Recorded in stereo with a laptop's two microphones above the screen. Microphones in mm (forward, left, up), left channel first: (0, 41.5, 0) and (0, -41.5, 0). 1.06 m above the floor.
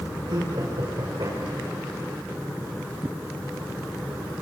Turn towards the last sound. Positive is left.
turn(degrees=-70)  # may be behind; listen again after turning